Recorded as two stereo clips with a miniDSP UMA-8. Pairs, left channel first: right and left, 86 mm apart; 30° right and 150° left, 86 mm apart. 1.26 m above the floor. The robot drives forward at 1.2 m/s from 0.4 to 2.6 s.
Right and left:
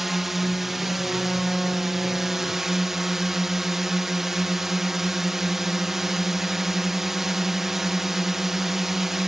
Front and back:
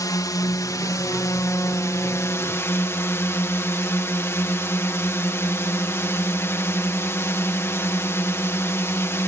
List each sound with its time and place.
0.0 s a drone: 5° left